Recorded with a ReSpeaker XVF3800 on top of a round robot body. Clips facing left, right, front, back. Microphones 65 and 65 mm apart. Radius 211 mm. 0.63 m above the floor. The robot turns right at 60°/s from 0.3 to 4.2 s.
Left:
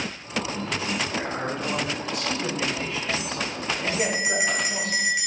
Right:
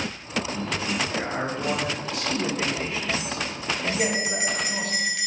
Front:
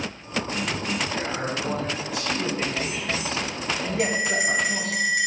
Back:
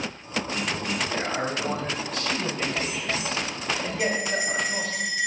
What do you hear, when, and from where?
1.1 s a man speaking: 145° right, 4 m; by 5.0 s 40° left, 4 m
4.0 s a bell: 5° left, 2 m; by 5.3 s 15° left, 2 m